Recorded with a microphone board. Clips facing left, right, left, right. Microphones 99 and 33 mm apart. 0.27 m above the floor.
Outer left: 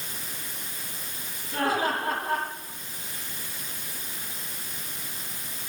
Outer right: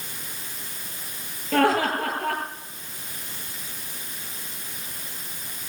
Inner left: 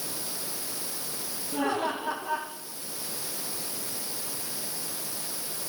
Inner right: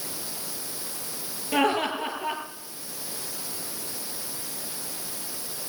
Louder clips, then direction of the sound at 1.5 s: Outer right 5 dB, inner right 5 dB; 70° right (ahead or behind).